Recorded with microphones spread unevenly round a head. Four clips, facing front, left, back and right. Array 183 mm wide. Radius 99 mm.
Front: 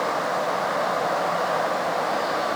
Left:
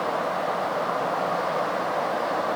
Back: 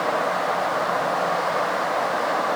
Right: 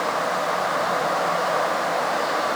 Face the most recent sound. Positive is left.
No sound to turn to.